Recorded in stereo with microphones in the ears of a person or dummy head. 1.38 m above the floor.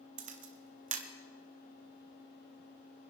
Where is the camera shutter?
35° right (ahead or behind), 1.0 m.